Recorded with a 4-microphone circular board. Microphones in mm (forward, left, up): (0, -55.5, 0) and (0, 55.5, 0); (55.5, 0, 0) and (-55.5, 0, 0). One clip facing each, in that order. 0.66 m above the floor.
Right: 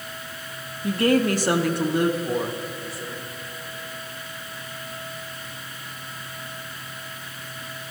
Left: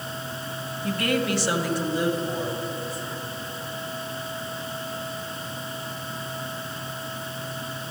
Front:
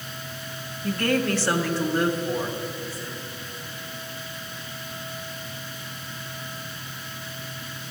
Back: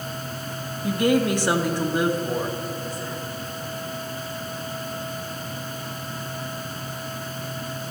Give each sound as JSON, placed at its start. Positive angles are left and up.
{"t": 0.8, "sound": "a woman speaking", "azimuth_deg": -120, "distance_m": 0.5}